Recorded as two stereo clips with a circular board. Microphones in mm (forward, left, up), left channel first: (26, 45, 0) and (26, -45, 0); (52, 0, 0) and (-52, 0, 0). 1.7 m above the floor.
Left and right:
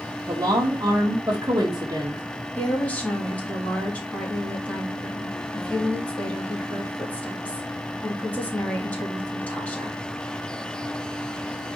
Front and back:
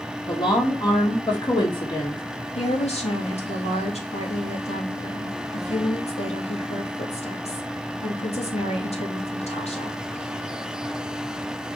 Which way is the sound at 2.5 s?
15° left.